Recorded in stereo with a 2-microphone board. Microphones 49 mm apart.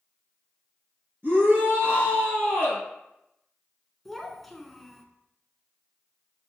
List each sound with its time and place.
1.2 s a shout: 50° right (ahead or behind), 2.5 m
4.0 s a child speaking: 5° left (ahead or behind), 0.6 m